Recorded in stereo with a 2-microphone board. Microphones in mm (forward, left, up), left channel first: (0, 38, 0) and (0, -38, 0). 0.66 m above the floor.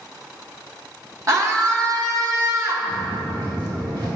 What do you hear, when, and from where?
1.3 s a scream: 45° right (ahead or behind), 1.6 m
2.9 s footsteps: 45° right (ahead or behind), 4 m; by 4.1 s 55° right (ahead or behind), 4.5 m